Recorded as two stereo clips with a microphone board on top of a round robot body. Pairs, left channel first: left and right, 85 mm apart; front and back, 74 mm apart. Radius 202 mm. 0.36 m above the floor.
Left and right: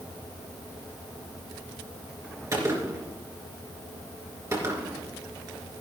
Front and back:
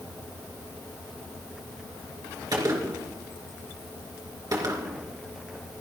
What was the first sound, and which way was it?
A gunshot, 145° right.